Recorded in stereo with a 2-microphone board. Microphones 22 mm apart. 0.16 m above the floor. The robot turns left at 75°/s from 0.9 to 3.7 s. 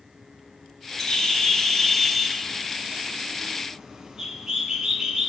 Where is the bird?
75° left, 0.8 m; by 5.3 s 130° right, 0.8 m.